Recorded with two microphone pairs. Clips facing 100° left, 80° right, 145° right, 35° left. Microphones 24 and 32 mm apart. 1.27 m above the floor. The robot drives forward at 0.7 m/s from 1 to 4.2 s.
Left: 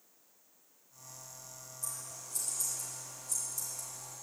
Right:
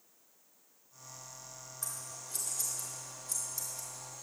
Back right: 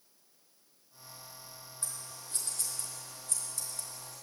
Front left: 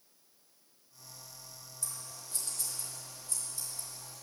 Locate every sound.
1.8 s scissors: 100° right, 3 m; by 4.2 s 130° right, 3.5 m